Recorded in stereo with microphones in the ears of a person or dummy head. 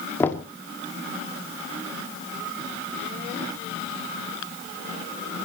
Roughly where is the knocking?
Centre.